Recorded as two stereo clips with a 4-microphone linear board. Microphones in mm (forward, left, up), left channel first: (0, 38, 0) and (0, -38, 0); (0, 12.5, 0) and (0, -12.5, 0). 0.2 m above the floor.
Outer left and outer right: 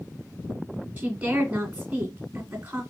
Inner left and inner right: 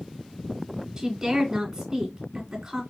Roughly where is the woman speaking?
Centre.